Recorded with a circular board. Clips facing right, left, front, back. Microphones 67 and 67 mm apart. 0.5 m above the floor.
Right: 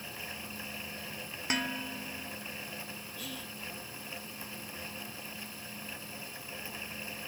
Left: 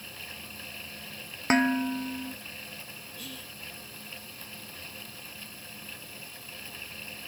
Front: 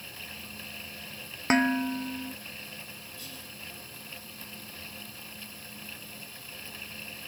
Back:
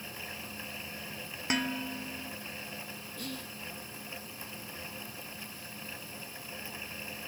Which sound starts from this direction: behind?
Whispering, at 3.2 s.